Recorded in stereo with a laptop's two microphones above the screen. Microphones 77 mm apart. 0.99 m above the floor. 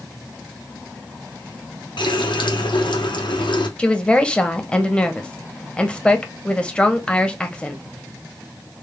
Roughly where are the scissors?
No scissors in this recording.